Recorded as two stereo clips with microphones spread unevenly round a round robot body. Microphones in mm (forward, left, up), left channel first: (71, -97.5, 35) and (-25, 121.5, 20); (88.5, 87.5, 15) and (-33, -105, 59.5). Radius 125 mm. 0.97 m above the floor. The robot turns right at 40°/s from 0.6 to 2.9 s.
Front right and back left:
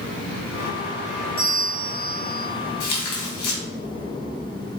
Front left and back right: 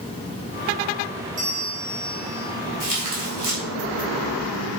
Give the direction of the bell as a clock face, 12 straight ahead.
4 o'clock.